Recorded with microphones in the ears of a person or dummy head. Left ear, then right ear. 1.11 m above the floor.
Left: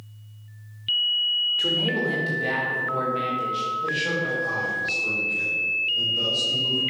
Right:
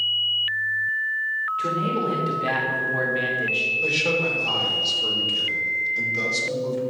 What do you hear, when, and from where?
1.6 s a man speaking: centre (ahead or behind), 3 m; by 3.7 s 30° right (ahead or behind), 2.5 m
3.8 s a man speaking: 40° right (ahead or behind), 4.5 m